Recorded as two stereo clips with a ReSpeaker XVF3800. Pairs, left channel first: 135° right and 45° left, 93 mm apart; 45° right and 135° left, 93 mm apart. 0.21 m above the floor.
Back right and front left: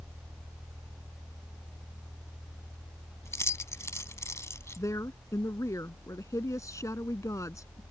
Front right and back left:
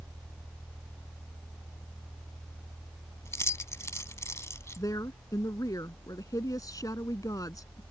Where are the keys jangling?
90° right.